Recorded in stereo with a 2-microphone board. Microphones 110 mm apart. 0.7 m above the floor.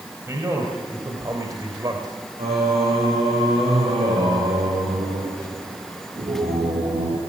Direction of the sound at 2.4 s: 80° right.